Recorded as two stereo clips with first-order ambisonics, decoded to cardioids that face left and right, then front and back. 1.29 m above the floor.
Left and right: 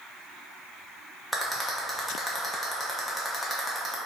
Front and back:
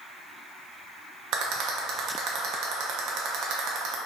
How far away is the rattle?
About 0.5 m.